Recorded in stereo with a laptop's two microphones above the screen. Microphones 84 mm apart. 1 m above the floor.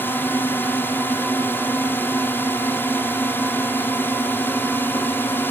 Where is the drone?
25° left (ahead or behind).